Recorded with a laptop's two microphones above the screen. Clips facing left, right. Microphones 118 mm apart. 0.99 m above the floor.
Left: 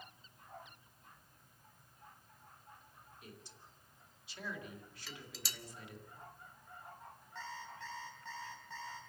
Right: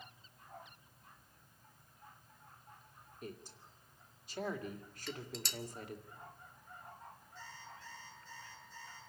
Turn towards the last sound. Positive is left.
turn(degrees=75)  # may be behind; listen again after turning